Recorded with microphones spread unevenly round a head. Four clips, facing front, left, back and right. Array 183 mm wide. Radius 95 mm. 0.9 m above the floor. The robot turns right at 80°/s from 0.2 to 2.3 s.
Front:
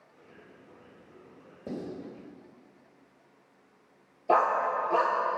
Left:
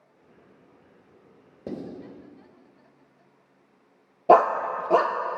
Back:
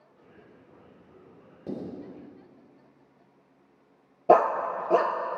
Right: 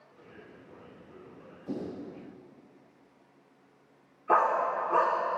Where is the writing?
90° left, 3.5 m; by 1.8 s 100° left, 3.5 m.